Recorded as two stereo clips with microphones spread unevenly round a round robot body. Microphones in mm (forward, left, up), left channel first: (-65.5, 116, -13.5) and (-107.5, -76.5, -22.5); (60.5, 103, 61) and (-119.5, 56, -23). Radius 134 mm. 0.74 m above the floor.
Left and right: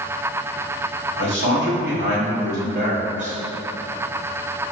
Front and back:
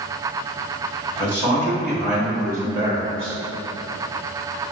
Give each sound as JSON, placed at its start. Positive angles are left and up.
{"t": 1.2, "sound": "a man speaking", "azimuth_deg": -70, "distance_m": 1.4}